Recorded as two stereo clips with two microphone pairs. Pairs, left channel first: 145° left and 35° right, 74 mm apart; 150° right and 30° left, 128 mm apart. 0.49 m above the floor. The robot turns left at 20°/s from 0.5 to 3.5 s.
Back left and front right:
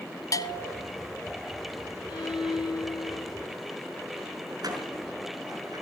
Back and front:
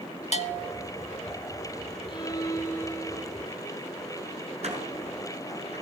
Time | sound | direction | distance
0.3 | a bell | straight behind | 1.2 m
2.1 | a violin | 155° left | 3.5 m
4.6 | a door slam | 5° right | 5.5 m